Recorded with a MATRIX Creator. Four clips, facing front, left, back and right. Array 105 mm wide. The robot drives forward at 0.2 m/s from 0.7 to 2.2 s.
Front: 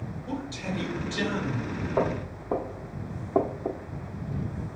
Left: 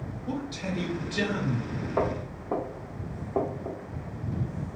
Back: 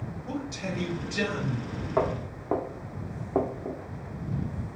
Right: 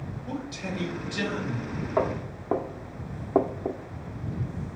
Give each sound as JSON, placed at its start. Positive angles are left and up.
{"t": 0.3, "sound": "a man speaking", "azimuth_deg": -175, "distance_m": 1.6}
{"t": 2.0, "sound": "footsteps", "azimuth_deg": -130, "distance_m": 1.5}